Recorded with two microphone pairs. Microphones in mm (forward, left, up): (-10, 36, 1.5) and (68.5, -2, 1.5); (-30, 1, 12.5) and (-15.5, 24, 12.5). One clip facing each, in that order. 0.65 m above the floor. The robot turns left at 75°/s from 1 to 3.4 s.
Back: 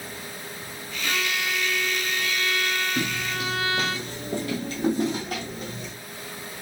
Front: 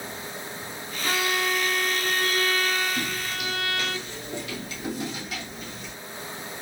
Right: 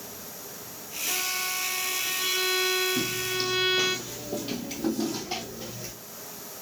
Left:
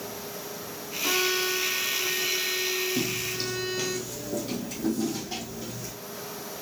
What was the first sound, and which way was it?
A violin, 40° left.